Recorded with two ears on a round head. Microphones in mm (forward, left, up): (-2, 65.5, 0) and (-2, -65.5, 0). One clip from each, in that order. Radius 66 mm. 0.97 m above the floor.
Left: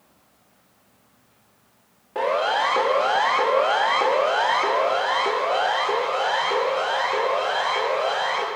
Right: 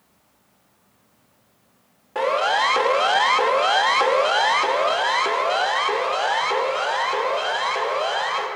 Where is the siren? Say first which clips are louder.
Right 2 dB; 35° right (ahead or behind), 2 m.